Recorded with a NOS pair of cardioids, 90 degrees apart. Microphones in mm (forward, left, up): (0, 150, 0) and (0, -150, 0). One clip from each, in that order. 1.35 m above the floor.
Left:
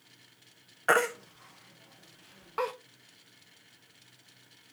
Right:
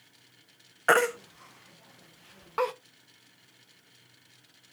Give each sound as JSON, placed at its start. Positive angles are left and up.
{"t": 0.9, "sound": "a baby crying", "azimuth_deg": -20, "distance_m": 0.8}